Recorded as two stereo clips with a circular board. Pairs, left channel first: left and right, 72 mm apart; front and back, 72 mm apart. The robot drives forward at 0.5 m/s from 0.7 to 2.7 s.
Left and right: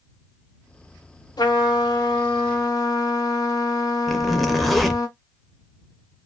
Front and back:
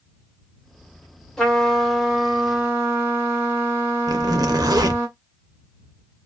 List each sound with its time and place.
1.4 s a trumpet: 80° left, 1.0 m; by 5.1 s 115° left, 1.1 m
4.1 s a zipper: straight behind, 0.5 m